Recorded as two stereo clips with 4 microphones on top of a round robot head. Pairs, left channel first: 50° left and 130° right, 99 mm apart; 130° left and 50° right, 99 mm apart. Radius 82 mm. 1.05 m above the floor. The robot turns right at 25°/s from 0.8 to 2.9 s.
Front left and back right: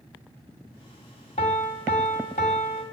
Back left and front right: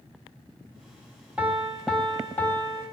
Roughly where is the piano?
Ahead left.